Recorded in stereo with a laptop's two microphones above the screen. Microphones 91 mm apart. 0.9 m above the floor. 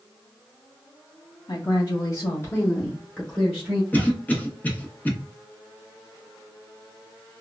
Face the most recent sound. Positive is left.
turn(degrees=20)  # may be behind; listen again after turning